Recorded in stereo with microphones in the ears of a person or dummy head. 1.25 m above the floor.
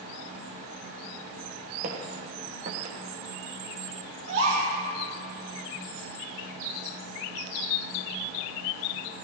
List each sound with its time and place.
1.8 s footsteps: 40° right (ahead or behind), 3.5 m; by 3.0 s 30° right (ahead or behind), 3.5 m
4.3 s a gasp: 70° right (ahead or behind), 6 m